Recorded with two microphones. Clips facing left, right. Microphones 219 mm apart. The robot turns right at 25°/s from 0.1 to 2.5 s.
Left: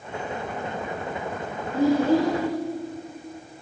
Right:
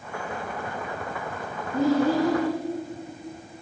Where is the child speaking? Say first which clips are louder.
Left 2 dB; 60° right (ahead or behind), 3 m; by 2.4 s 45° right (ahead or behind), 3 m.